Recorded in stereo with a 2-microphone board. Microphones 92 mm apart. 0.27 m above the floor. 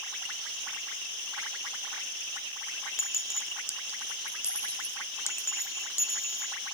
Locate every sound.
3.0 s a clink: 30° left (ahead or behind)